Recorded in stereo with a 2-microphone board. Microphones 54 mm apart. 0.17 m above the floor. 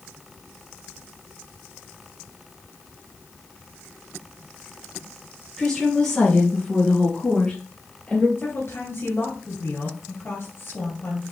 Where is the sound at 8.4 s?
50° left (ahead or behind), 3.5 m.